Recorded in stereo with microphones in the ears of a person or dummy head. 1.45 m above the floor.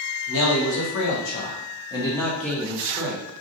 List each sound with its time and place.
0.3 s a man speaking: 70° left (ahead or behind), 1.2 m; by 3.4 s 10° right (ahead or behind), 1.3 m